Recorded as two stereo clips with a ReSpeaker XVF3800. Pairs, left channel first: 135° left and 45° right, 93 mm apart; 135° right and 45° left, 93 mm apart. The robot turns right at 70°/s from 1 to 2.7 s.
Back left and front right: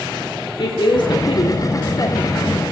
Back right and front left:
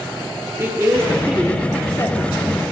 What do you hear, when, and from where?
0.6 s a woman speaking: 105° left, 2 m; by 2.6 s 140° right, 2 m